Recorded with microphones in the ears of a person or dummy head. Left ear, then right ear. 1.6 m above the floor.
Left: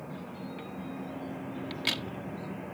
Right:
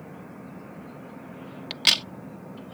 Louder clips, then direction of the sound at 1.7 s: Right 11 dB; 50° right (ahead or behind).